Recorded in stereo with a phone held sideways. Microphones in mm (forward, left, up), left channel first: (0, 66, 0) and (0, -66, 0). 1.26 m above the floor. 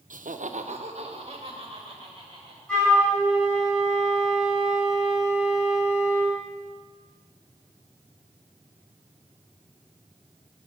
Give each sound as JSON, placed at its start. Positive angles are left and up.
{"t": 0.1, "sound": "laughter", "side_deg": -80, "distance_m": 0.6}
{"t": 2.7, "sound": "a flute", "side_deg": 5, "distance_m": 4.5}